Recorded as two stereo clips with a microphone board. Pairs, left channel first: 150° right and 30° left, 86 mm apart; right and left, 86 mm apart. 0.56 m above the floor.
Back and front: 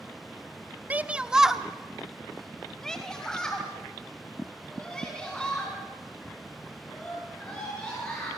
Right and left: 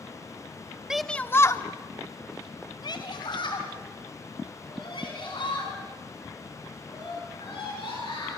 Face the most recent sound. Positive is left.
turn(degrees=-70)